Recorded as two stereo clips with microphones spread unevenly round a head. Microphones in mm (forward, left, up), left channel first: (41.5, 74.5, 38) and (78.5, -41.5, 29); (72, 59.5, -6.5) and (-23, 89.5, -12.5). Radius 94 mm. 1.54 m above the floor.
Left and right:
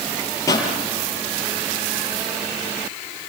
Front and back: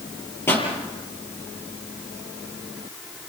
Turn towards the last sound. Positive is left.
turn(degrees=45)